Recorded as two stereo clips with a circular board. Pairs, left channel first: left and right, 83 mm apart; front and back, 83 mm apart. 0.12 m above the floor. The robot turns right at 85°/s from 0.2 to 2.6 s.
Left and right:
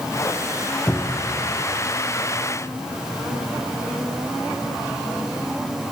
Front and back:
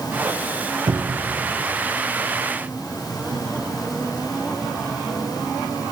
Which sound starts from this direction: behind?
A cupboard door, at 0.9 s.